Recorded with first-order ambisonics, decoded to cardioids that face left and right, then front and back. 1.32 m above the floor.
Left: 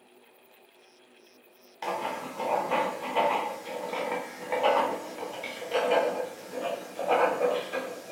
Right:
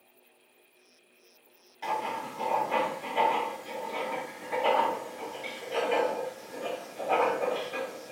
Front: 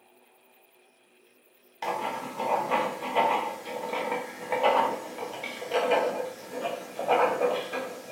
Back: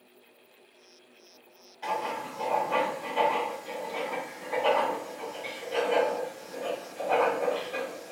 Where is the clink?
I don't hear a clink.